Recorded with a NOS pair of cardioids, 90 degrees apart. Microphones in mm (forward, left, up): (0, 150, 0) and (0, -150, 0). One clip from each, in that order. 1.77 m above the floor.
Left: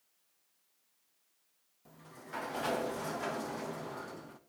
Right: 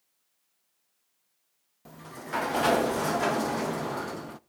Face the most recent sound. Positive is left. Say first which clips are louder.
# right 11 dB
turn(degrees=-50)